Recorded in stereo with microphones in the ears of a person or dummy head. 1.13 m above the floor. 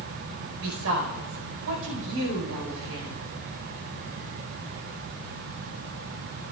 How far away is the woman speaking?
About 4.5 m.